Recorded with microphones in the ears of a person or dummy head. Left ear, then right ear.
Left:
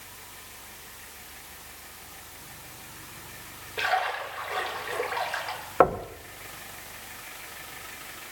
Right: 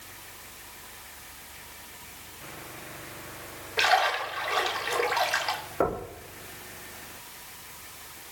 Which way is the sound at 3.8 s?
25° right (ahead or behind).